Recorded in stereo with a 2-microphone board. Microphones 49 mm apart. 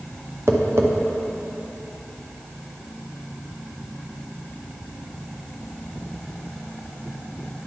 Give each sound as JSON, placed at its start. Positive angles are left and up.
{"t": 0.5, "sound": "tapping", "side_deg": -65, "distance_m": 0.7}